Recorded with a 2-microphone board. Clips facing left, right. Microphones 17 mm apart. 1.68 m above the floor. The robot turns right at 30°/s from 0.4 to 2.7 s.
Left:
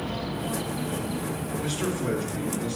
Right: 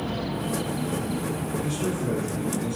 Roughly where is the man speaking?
Ahead left.